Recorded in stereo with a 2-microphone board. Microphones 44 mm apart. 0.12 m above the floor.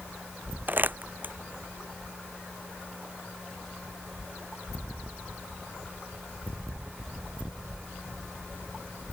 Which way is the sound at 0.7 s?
40° right (ahead or behind).